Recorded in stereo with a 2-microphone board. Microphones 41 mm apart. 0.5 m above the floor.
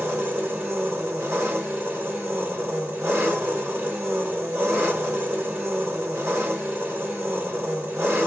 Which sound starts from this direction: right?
An engine running, at 0.0 s.